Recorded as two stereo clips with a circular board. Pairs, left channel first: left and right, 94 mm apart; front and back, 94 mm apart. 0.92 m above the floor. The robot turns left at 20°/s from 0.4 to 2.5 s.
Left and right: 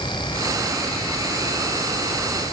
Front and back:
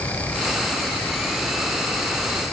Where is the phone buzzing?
I don't hear a phone buzzing.